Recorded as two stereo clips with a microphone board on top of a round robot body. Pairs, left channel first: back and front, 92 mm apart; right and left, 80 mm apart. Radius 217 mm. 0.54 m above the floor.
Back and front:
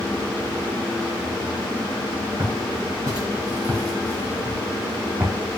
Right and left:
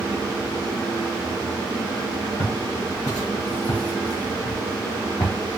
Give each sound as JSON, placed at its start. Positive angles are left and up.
{"t": 2.4, "sound": "footsteps", "azimuth_deg": -45, "distance_m": 3.0}